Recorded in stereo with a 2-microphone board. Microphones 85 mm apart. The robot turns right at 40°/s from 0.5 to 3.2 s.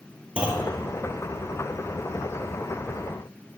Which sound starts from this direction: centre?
A clunk, at 0.4 s.